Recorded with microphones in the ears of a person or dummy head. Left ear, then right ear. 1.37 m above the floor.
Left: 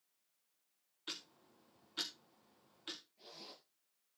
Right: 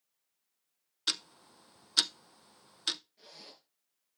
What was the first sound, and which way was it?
Ticking, 65° right (ahead or behind).